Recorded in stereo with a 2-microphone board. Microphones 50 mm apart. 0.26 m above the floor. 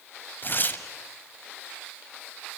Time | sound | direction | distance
0.4 | tearing paper | 40° left (ahead or behind) | 1.2 m